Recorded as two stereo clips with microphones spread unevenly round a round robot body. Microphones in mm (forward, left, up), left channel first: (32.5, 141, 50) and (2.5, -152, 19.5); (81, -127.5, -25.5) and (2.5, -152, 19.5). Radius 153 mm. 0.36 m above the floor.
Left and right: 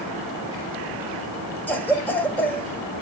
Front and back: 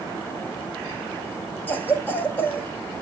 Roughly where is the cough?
Ahead.